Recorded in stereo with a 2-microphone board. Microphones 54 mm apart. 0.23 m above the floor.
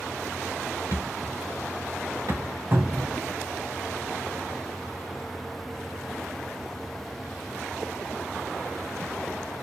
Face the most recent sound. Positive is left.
turn(degrees=-40)  # may be behind; listen again after turning